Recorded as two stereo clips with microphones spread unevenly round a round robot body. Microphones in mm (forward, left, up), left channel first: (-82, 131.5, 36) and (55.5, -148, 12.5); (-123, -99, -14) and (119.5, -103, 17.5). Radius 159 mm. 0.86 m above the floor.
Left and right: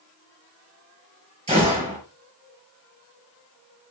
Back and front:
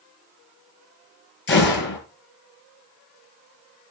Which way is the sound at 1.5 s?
135° right.